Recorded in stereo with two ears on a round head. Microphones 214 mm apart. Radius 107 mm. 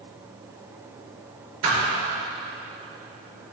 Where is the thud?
65° right (ahead or behind), 3.5 m.